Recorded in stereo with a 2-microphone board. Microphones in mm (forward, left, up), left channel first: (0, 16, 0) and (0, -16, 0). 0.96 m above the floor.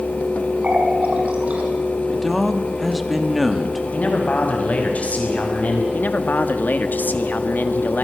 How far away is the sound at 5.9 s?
About 1.8 m.